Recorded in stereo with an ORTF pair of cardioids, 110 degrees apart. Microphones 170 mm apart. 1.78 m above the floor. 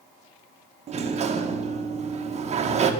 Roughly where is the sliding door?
Ahead right.